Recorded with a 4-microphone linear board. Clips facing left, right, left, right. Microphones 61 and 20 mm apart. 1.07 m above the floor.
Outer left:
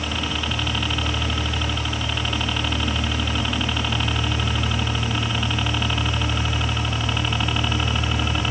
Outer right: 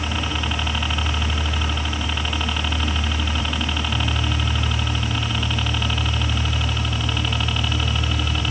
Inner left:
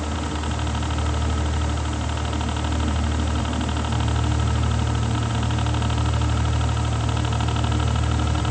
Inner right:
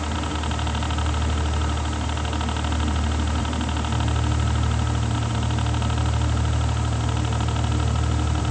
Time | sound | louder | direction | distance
0.0 | a helicopter | outer right 1 dB, even | 10° right (ahead or behind) | ?